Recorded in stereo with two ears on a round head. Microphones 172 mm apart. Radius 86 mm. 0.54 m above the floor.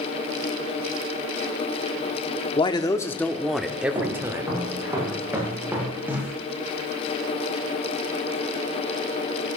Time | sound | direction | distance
2.6 | a man speaking | 25° left (ahead or behind) | 1.0 m
4.0 | footsteps | 15° right (ahead or behind) | 9 m